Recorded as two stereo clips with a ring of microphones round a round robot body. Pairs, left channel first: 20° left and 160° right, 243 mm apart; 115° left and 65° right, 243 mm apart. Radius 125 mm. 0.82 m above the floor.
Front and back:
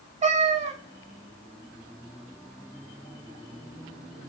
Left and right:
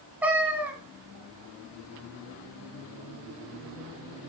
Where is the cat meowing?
145° right, 0.7 m.